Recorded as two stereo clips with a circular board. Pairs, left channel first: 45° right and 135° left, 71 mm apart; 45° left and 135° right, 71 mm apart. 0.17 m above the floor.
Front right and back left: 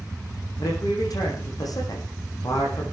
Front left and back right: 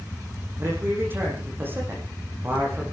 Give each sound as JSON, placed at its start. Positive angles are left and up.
{"t": 0.6, "sound": "a man speaking", "azimuth_deg": -75, "distance_m": 9.5}